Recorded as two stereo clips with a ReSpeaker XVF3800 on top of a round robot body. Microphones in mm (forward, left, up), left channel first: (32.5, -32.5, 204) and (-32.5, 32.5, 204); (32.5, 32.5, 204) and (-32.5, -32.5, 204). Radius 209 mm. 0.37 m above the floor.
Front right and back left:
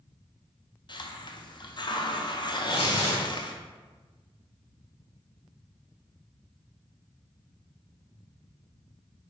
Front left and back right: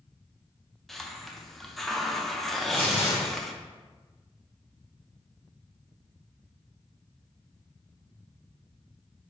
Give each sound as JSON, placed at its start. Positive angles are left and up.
{"t": 0.9, "sound": "a hiss", "azimuth_deg": -45, "distance_m": 0.7}
{"t": 2.5, "sound": "tearing paper", "azimuth_deg": -30, "distance_m": 0.5}